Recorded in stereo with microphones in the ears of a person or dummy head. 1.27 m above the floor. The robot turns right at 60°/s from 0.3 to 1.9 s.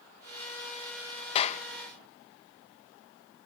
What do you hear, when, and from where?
1.4 s a clap: 30° left (ahead or behind); by 1.6 s 50° left (ahead or behind)